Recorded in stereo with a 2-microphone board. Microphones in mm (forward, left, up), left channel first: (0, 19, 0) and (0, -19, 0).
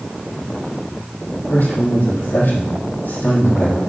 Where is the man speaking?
65° left (ahead or behind), 3.5 m.